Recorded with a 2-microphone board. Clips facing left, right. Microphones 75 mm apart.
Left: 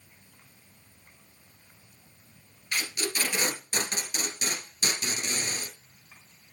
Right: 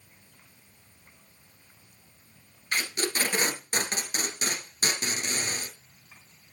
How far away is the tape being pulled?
About 1.5 m.